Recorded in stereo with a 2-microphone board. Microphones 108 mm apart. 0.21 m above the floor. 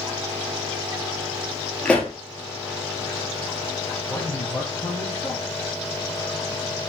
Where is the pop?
10° left (ahead or behind), 1.3 m.